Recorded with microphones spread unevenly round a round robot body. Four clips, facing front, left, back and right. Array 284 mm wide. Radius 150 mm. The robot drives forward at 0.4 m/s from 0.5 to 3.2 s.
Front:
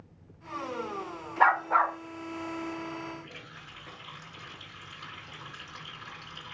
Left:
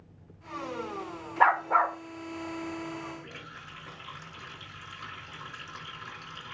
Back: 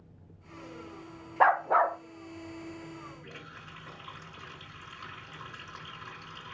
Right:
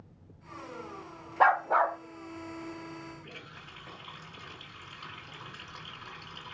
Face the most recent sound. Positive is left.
turn(degrees=130)